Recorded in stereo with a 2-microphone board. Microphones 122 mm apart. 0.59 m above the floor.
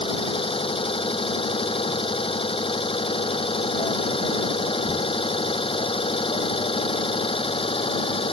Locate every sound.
0.0 s an engine running: 50° left (ahead or behind)